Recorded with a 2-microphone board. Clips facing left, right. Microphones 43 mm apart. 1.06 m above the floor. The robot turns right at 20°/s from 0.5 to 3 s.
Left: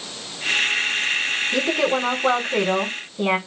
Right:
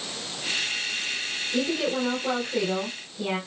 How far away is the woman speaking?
About 4 m.